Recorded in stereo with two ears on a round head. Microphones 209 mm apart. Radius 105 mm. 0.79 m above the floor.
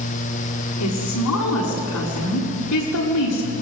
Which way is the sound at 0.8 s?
85° left.